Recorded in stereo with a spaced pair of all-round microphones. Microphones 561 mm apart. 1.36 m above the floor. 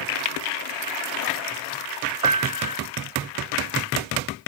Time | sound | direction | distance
2.2 | a piano | 70° right (ahead or behind) | ?